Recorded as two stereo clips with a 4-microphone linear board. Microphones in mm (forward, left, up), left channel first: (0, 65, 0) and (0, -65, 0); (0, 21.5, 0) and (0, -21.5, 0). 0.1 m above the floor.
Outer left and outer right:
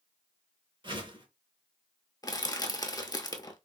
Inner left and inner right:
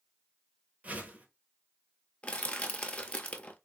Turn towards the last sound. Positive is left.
turn(degrees=30)  # may be behind; listen again after turning